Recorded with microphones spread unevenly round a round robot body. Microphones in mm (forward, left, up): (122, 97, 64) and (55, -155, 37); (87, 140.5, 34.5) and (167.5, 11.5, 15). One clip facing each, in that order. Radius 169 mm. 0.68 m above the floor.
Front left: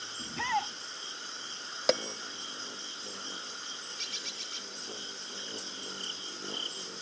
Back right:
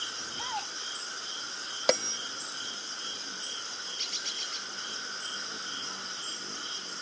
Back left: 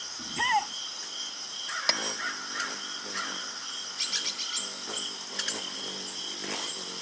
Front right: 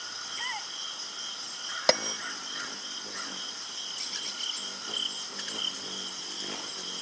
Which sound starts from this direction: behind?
A bird, at 4.0 s.